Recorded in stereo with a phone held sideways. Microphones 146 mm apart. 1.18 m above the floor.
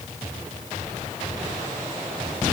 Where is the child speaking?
I don't hear a child speaking.